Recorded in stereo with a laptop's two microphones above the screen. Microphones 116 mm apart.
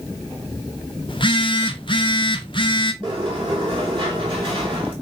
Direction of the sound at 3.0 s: 45° right (ahead or behind).